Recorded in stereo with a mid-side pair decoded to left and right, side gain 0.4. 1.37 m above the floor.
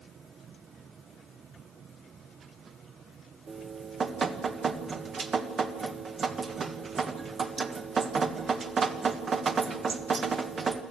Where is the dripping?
50° right, 1.4 m.